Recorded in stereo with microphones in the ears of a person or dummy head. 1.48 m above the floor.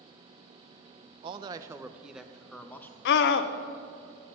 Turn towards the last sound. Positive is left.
turn(degrees=60)  # may be behind; listen again after turning